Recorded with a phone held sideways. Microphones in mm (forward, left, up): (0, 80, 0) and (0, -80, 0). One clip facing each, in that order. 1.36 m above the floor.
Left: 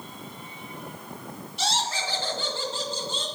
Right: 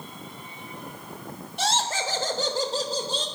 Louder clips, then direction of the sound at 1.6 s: Right 3 dB; 55° right (ahead or behind).